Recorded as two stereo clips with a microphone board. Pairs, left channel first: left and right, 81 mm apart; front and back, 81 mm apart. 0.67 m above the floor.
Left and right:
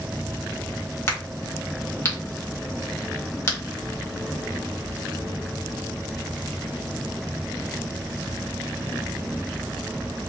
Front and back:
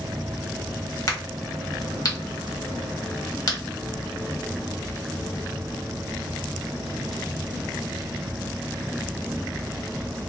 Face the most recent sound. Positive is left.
turn(degrees=35)